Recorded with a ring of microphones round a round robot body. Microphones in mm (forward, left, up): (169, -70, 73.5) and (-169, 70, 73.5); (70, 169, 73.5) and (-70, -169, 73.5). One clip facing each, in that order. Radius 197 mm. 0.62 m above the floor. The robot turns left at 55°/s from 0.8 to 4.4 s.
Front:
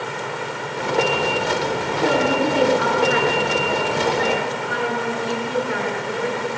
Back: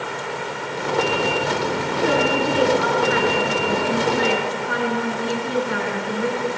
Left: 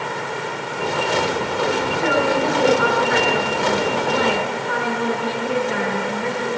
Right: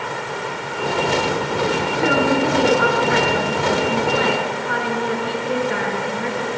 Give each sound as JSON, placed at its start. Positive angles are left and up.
{"t": 2.0, "sound": "a woman speaking", "azimuth_deg": -45, "distance_m": 7.5}